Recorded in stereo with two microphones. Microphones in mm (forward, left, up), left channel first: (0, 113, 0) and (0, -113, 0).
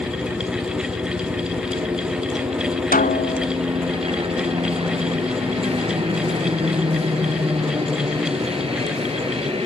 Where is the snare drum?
40° left (ahead or behind).